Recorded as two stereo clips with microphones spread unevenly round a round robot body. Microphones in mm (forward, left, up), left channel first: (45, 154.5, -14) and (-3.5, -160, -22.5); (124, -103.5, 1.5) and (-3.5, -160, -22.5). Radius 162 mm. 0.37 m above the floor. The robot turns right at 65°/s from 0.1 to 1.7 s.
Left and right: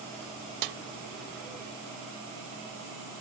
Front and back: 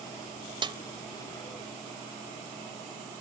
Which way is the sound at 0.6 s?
110° right.